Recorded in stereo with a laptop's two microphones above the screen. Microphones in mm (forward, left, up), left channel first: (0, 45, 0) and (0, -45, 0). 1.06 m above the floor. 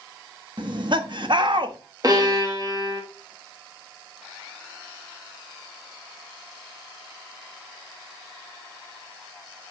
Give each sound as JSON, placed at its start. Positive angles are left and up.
{"t": 0.6, "sound": "laughter", "side_deg": -55, "distance_m": 1.4}
{"t": 2.0, "sound": "a violin", "side_deg": -45, "distance_m": 1.9}